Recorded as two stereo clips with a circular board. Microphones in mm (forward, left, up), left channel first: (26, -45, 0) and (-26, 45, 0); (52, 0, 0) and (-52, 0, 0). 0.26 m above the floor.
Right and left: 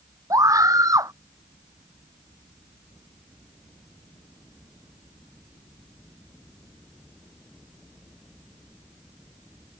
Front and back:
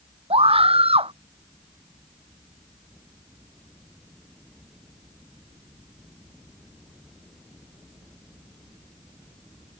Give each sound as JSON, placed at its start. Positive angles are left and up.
{"t": 0.3, "sound": "a scream", "azimuth_deg": 175}